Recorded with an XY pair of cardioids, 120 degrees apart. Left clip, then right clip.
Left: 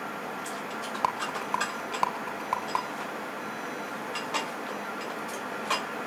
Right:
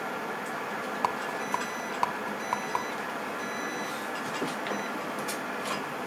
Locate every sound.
1.0 s a rattle: 10° left, 2 m